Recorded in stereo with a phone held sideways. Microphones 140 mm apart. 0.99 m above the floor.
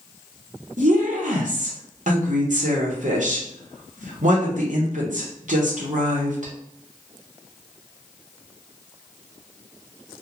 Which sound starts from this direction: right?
A woman speaking, at 0.8 s.